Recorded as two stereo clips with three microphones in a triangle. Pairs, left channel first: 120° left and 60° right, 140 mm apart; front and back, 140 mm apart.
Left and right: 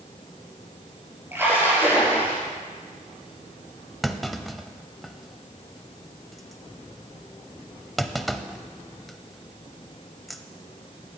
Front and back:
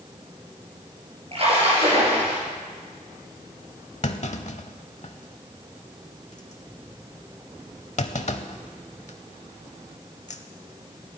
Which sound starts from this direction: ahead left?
A clunk, at 4.0 s.